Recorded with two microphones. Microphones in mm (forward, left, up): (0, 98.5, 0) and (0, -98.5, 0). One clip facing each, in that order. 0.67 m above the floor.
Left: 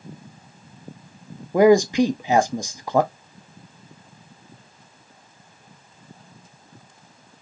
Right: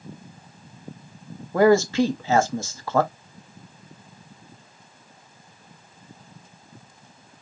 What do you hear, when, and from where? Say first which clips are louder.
1.5 s a man speaking: left 3 dB; 15° left (ahead or behind), 0.6 m